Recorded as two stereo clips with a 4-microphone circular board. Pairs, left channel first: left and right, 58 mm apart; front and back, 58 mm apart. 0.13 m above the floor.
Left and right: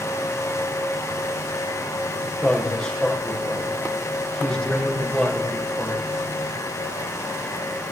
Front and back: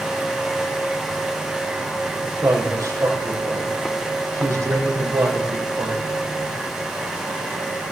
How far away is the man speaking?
About 4 m.